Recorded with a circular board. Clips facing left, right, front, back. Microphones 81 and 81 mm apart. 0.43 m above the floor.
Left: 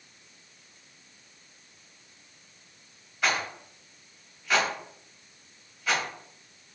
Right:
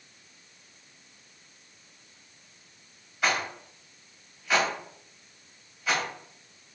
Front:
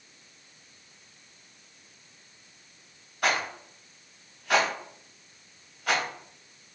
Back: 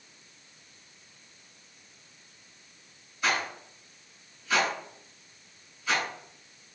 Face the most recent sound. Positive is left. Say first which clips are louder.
# even, front 2 dB
turn(degrees=-5)